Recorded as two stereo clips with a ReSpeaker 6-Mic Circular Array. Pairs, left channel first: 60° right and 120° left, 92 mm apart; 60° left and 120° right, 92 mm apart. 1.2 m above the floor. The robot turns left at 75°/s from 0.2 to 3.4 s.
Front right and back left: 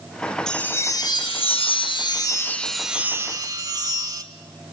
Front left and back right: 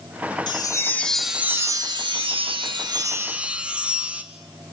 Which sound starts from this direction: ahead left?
A chime, at 0.5 s.